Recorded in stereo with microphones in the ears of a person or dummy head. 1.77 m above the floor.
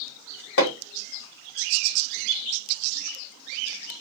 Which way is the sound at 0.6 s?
60° left (ahead or behind).